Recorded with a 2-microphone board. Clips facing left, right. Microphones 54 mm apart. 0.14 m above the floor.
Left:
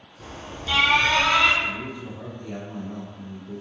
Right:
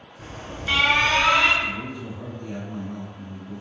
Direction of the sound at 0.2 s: 45° right (ahead or behind).